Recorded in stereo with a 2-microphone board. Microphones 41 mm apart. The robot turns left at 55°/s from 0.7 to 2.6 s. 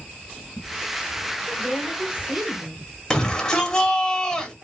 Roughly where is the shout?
Centre.